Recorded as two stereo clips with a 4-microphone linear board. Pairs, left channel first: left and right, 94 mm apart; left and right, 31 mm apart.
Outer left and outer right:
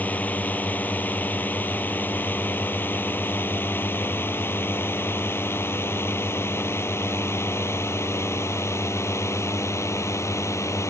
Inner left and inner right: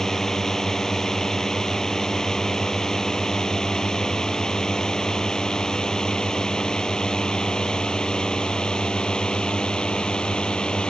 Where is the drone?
15° left (ahead or behind); by 10.9 s 30° left (ahead or behind).